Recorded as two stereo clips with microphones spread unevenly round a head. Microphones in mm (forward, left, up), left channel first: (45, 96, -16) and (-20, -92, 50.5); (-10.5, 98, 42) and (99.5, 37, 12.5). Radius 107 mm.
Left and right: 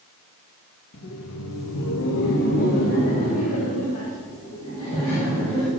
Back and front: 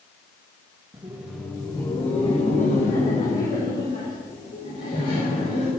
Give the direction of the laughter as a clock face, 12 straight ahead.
11 o'clock.